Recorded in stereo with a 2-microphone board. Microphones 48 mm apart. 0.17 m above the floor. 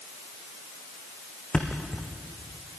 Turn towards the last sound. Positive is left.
turn(degrees=20)  # may be behind; listen again after turning